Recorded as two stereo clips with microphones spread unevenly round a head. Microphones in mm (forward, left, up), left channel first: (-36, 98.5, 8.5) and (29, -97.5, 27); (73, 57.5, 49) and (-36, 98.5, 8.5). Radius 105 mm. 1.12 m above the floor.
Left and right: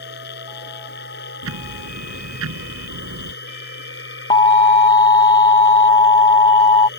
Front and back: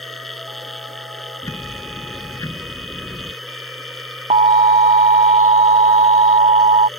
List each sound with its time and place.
0.0 s a machine running: 65° left
1.4 s ticking: 95° right
4.3 s an alarm: 170° left